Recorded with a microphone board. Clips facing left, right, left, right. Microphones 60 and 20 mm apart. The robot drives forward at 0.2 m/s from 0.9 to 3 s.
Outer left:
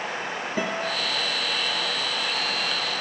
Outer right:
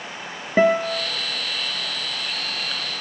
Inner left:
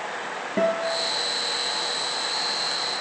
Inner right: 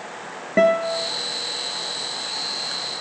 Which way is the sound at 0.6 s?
60° right (ahead or behind).